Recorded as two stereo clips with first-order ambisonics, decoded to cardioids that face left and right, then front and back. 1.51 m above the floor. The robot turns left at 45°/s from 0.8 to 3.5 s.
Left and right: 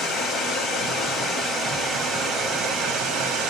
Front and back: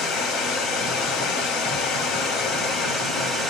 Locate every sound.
0.0 s running water: 40° left, 1.2 m; by 3.5 s 80° right, 1.2 m